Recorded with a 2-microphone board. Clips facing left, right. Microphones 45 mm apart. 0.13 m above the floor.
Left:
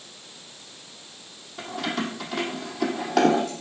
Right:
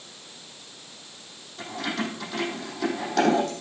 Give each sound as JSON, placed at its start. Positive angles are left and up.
{"t": 1.6, "sound": "keys jangling", "side_deg": 75, "distance_m": 3.5}